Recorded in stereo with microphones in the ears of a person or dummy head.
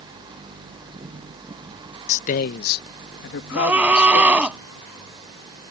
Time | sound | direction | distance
2.1 | a man speaking | 35° left (ahead or behind) | ?
3.5 | a scream | 10° right (ahead or behind) | ?